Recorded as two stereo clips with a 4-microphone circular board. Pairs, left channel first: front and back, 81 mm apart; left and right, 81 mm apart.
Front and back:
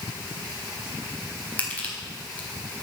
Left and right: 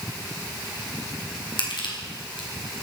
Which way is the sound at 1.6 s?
70° left.